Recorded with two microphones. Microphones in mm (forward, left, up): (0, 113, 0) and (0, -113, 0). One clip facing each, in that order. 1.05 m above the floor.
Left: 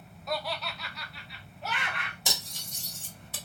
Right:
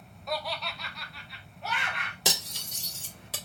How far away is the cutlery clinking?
About 1.4 m.